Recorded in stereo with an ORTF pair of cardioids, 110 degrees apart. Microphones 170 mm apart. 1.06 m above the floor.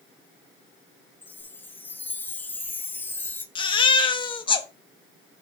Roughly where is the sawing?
No sawing in this recording.